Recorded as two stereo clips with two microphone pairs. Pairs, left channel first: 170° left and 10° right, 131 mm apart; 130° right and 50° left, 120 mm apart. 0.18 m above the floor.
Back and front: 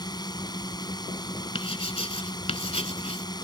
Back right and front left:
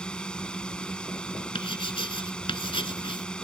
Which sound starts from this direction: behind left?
A drone, at 0.0 s.